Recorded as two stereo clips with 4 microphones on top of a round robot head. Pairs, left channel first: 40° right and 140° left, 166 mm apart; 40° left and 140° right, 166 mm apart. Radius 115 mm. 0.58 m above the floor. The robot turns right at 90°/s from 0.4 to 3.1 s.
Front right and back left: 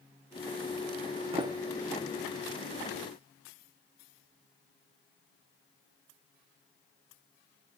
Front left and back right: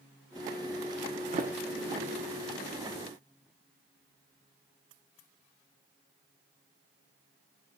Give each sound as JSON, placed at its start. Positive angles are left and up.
{"t": 1.3, "sound": "a sliding door", "azimuth_deg": -175, "distance_m": 1.8}